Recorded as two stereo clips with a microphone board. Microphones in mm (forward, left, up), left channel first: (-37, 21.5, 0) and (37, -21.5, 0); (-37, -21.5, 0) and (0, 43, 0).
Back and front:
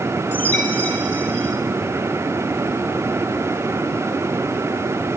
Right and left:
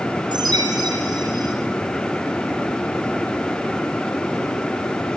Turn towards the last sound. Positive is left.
turn(degrees=85)